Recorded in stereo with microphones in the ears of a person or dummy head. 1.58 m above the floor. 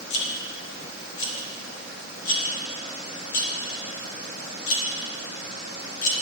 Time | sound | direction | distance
0.1 | a rattle | 75° left (ahead or behind) | 2.5 m